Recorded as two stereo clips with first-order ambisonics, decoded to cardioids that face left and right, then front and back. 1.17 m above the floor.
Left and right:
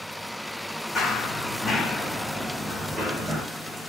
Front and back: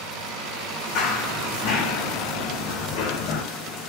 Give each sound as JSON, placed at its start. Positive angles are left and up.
{"t": 0.9, "sound": "running footsteps", "azimuth_deg": 20, "distance_m": 3.0}